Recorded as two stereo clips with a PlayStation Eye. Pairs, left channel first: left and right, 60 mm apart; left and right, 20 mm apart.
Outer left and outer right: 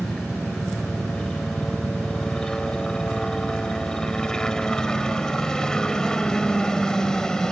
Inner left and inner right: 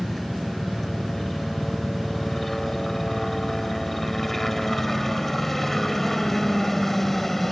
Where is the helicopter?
10° left (ahead or behind).